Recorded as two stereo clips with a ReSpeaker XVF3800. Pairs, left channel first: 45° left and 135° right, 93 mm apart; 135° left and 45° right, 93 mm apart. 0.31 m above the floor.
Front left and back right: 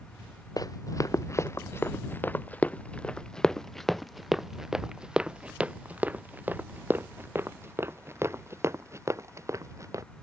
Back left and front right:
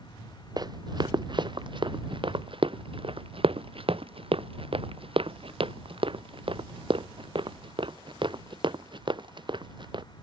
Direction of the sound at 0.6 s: 5° right.